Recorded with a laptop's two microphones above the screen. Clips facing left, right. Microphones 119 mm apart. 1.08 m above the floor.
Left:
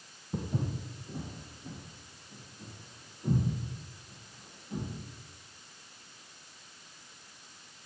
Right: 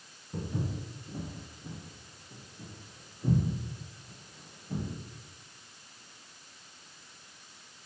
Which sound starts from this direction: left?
Footsteps, at 0.3 s.